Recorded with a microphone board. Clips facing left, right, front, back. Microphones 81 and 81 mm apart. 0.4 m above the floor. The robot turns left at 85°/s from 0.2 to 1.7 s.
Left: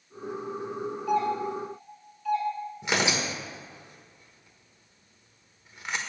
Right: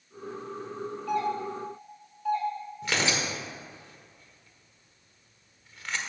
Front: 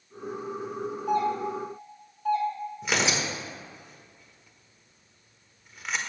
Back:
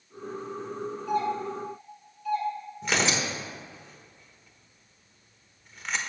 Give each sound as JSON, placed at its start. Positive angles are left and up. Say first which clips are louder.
{"t": 1.1, "sound": "a doorbell", "louder": "left 3 dB, front 2 dB", "azimuth_deg": 15, "distance_m": 3.0}
{"t": 2.8, "sound": "tearing paper", "louder": "left 2 dB, back 1 dB", "azimuth_deg": 75, "distance_m": 1.2}